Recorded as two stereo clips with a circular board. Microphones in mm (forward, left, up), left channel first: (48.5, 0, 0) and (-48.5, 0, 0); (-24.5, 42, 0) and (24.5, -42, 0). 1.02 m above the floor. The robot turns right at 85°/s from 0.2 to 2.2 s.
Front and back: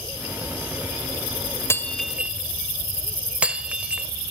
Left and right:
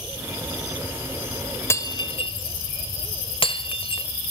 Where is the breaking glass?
60° left, 1.6 m; by 4.1 s 105° left, 1.6 m.